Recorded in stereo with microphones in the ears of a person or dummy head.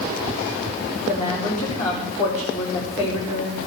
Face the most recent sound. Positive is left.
turn(degrees=35)  # may be behind; listen again after turning